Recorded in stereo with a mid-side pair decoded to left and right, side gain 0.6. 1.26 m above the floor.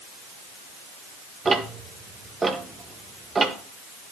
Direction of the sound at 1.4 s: 20° right.